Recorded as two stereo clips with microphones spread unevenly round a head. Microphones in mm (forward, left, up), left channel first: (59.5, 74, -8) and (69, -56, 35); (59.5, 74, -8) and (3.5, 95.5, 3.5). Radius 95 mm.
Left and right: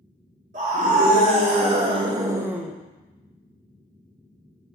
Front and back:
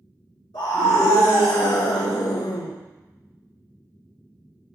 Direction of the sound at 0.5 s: 65° right.